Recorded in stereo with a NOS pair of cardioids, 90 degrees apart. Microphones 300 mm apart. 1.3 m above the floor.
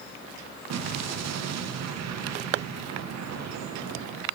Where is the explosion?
60° right, 0.8 m.